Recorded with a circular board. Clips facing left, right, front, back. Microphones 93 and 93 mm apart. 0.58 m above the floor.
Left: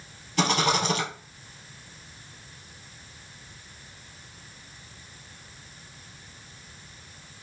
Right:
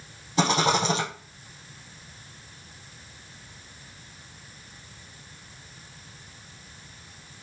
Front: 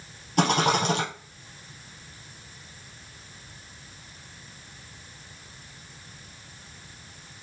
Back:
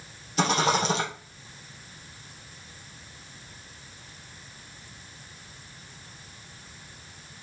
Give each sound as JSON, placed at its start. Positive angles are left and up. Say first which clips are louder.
{"t": 0.4, "sound": "a rattle", "louder": "right 2 dB, front 1 dB", "azimuth_deg": -30, "distance_m": 2.5}